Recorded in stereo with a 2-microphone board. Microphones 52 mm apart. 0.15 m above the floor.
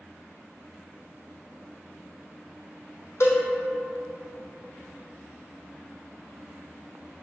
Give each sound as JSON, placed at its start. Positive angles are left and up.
{"t": 3.2, "sound": "a cowbell", "side_deg": 60, "distance_m": 1.0}